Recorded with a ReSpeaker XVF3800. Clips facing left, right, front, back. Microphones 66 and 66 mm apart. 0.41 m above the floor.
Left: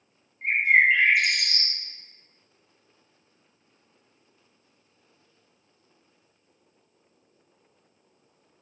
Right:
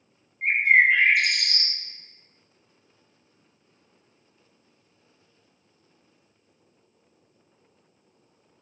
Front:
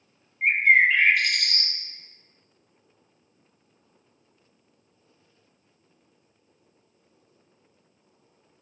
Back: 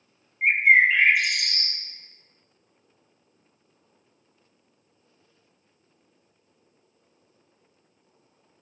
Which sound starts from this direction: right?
A bird, at 0.4 s.